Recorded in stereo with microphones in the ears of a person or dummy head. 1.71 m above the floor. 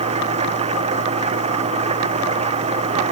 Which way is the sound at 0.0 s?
30° right (ahead or behind).